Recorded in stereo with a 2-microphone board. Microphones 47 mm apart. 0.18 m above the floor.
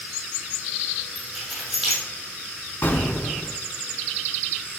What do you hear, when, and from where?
1.1 s keys jangling: 5° right (ahead or behind), 4.5 m
2.8 s an explosion: 45° left (ahead or behind), 1.2 m